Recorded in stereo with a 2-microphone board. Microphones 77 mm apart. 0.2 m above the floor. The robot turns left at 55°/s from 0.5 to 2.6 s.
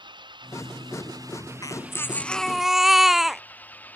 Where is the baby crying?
50° left; by 3.4 s 5° right.